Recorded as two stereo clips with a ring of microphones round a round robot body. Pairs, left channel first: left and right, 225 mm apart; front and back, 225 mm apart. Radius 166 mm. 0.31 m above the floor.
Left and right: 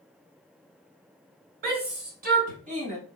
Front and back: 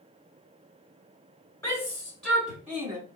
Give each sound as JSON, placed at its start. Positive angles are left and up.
{"t": 1.6, "sound": "a shout", "azimuth_deg": -75, "distance_m": 2.0}